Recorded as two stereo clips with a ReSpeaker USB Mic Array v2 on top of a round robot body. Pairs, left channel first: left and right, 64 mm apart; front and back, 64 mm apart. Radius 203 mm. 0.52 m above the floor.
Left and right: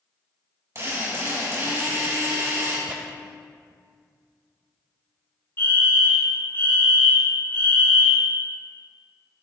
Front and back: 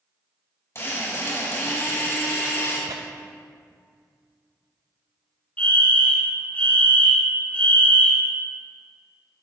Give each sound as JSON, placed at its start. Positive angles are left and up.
{"t": 0.8, "sound": "a drill", "azimuth_deg": -45, "distance_m": 3.5}
{"t": 2.9, "sound": "tearing paper", "azimuth_deg": -150, "distance_m": 0.7}
{"t": 5.6, "sound": "a fire alarm", "azimuth_deg": 55, "distance_m": 2.5}